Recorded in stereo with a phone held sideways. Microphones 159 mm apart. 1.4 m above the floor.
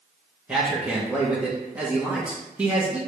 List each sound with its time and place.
0.5 s a man speaking: 10° right (ahead or behind), 1.0 m